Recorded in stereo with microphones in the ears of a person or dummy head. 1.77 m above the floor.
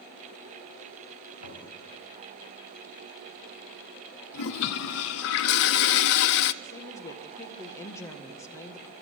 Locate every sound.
1.4 s knocking: 80° left, 6.5 m
4.3 s a toilet flushing: 60° left (ahead or behind), 0.6 m
6.6 s a woman speaking: 15° left (ahead or behind), 1.8 m